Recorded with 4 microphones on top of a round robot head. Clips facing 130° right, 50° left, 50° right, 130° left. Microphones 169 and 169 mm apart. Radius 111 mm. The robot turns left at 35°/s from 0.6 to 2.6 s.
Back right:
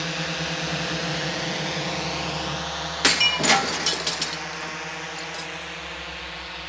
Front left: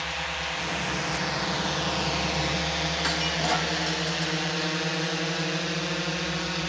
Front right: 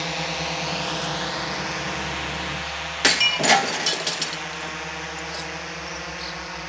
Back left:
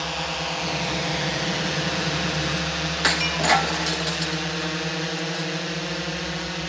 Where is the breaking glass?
110° right.